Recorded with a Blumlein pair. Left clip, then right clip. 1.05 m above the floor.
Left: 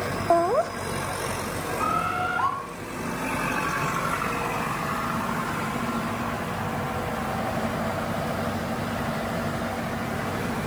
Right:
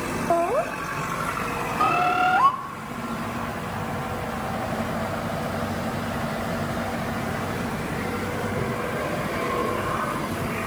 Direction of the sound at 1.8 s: 60° right.